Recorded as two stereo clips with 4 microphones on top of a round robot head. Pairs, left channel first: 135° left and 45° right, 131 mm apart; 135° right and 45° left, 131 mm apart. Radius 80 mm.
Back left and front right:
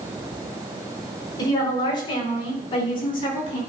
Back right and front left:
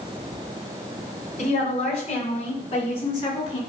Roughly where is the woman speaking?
Behind.